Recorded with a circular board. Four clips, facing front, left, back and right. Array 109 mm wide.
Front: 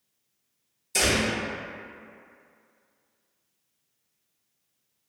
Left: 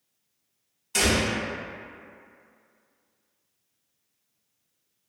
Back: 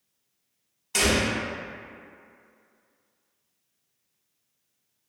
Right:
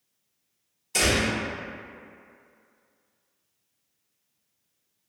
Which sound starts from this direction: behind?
A door slam, at 0.9 s.